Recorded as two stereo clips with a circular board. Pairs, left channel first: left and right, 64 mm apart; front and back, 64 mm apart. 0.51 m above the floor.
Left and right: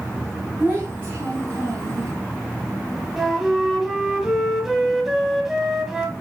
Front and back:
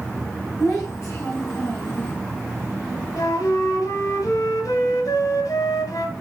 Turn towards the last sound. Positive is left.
turn(degrees=-10)